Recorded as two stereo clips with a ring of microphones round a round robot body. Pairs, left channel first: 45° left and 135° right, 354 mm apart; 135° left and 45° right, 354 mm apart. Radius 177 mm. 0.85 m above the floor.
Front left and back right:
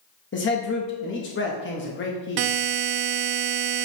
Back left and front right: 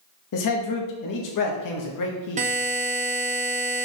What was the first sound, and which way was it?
A man speaking, 100° left.